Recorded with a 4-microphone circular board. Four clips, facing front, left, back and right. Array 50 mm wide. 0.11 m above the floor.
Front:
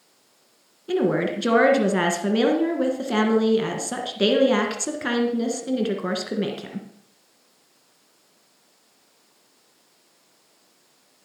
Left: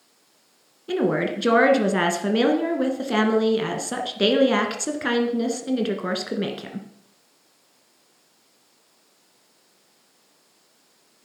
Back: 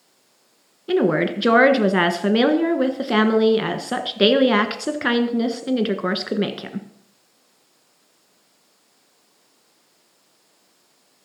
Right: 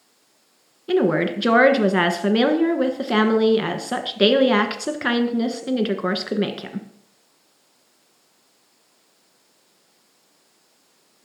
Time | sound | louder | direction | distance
0.9 | a woman speaking | right 3 dB, back 3 dB | 150° right | 1.2 m